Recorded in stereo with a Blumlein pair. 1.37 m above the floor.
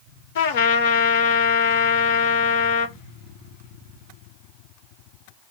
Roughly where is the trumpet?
Ahead left.